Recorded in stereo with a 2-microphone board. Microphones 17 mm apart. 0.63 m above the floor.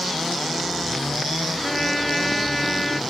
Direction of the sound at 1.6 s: Centre (ahead or behind).